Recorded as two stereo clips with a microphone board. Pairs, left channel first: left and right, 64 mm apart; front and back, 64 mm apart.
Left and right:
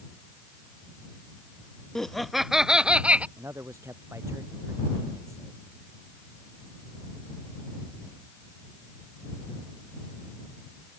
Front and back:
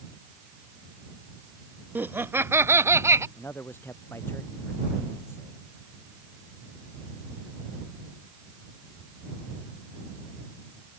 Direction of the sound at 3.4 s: 50° right.